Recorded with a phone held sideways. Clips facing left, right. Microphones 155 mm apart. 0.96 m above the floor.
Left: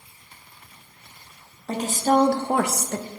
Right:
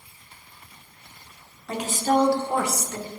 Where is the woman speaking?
35° left (ahead or behind), 1.1 m; by 3.1 s 50° left (ahead or behind), 0.7 m.